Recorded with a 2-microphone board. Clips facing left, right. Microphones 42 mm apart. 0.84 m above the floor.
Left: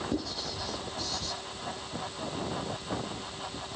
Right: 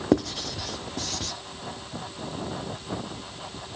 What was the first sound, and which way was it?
Writing, 65° right (ahead or behind).